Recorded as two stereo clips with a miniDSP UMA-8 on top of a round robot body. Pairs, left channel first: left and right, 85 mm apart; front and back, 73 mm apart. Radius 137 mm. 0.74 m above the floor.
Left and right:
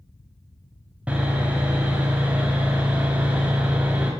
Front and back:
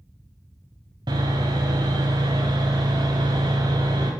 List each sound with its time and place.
1.1 s sawing: 165° right, 0.7 m